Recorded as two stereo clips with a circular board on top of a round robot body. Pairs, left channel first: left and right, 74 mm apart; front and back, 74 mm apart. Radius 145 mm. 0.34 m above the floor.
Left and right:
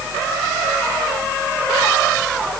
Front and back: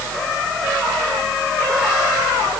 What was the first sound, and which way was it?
Only background noise.